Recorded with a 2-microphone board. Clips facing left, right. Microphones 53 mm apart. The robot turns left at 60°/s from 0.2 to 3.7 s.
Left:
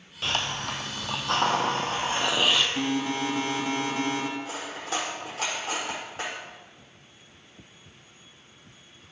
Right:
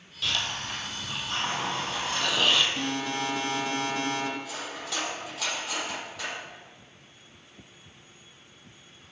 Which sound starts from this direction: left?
Cutlery clinking, at 4.4 s.